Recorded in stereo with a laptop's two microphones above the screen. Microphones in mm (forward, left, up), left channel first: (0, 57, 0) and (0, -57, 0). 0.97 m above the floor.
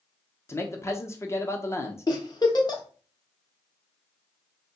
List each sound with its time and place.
0.5 s a man speaking: 25° left (ahead or behind), 0.7 m
2.1 s a giggle: 40° left (ahead or behind), 0.7 m